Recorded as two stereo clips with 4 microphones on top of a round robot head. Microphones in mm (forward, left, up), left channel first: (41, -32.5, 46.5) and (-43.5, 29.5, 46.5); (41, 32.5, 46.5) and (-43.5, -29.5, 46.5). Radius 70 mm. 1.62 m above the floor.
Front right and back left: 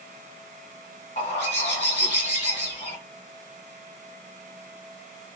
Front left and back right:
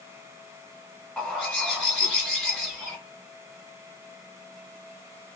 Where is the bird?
50° right, 1.7 m.